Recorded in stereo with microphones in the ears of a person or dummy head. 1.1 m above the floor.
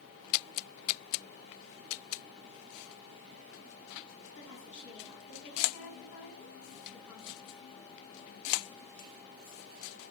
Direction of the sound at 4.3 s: 75° left (ahead or behind).